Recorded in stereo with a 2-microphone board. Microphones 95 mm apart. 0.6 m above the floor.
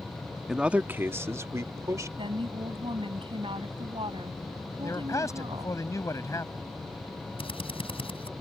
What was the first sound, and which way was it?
A man speaking, 5° right (ahead or behind).